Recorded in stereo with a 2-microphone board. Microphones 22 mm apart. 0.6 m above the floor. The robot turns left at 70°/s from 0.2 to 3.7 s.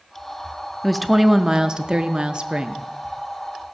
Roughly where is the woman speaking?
Ahead.